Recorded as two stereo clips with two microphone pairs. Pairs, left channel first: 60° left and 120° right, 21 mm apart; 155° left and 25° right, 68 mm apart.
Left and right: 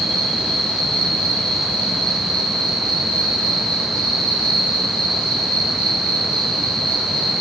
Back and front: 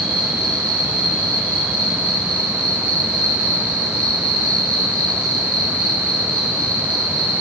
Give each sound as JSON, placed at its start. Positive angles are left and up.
{"t": 0.0, "sound": "an insect", "azimuth_deg": 80, "distance_m": 9.0}